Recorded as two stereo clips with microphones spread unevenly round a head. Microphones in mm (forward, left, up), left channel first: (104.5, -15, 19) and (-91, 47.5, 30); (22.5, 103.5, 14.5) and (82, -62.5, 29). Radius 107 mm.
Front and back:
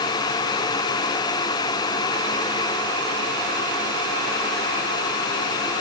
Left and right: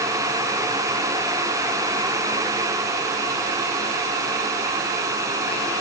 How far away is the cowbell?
No cowbell in this recording.